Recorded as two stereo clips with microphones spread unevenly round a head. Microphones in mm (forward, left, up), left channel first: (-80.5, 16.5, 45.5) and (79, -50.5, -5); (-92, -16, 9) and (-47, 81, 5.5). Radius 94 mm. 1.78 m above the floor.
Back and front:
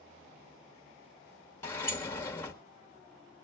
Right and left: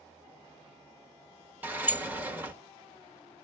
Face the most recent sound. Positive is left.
turn(degrees=125)